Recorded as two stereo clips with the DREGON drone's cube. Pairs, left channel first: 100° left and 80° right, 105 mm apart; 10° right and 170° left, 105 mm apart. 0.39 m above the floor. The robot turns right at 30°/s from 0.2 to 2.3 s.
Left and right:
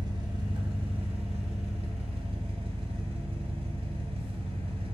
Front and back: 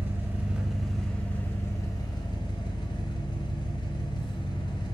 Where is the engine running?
120° right, 0.7 m; by 4.9 s 60° right, 0.7 m.